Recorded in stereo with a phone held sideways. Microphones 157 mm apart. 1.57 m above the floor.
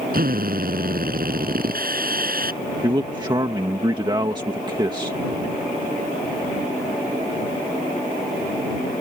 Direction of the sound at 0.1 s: 70° right (ahead or behind).